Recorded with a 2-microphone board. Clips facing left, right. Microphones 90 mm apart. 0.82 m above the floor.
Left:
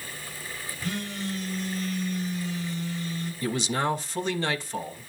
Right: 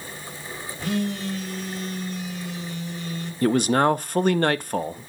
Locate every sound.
0.8 s a phone buzzing: 85° right, 3 m
3.4 s a man speaking: 55° right (ahead or behind), 0.5 m